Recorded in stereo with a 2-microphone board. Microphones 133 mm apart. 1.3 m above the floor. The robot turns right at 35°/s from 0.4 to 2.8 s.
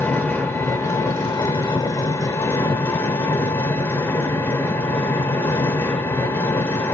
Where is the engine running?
15° left (ahead or behind), 1.0 m; by 6.9 s 20° left (ahead or behind), 1.0 m.